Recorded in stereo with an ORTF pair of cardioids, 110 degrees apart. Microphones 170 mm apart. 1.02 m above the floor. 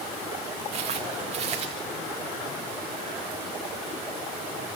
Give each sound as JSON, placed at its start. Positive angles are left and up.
{"t": 0.7, "sound": "footsteps", "azimuth_deg": -40, "distance_m": 5.0}